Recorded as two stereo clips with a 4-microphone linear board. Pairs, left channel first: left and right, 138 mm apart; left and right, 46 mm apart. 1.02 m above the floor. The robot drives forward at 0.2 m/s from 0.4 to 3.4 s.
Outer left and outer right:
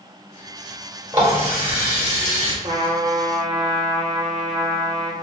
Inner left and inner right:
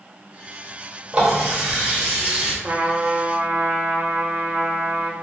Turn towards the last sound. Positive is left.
turn(degrees=-45)  # may be behind; listen again after turning